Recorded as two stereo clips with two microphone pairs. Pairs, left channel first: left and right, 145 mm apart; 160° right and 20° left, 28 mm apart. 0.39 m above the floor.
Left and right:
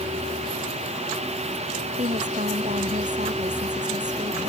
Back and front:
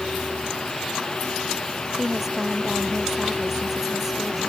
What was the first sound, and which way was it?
A woman speaking, 60° right.